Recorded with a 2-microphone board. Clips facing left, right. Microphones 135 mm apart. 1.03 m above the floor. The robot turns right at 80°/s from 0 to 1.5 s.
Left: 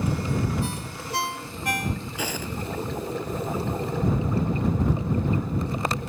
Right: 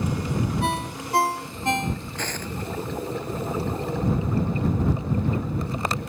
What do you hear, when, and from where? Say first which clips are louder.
0.6 s a ringtone: right 5 dB; 100° right; by 2.0 s 25° right
2.2 s footsteps: left 1 dB; 10° left (ahead or behind)